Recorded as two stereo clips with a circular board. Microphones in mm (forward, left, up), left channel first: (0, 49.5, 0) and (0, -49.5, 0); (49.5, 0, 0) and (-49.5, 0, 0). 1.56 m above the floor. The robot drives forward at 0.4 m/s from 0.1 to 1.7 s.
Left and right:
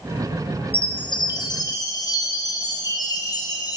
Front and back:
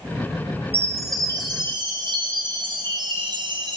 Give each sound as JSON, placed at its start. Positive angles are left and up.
{"t": 0.7, "sound": "a chime", "azimuth_deg": 115, "distance_m": 0.5}